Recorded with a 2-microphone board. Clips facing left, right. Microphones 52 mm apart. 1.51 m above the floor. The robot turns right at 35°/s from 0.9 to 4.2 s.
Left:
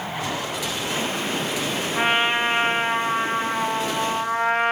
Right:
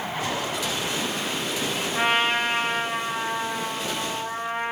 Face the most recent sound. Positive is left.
turn(degrees=85)